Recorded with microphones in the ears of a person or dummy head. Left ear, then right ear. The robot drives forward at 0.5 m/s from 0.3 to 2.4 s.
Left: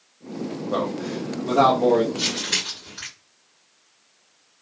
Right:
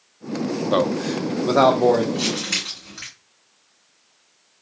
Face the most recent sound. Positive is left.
turn(degrees=-20)  # may be behind; listen again after turning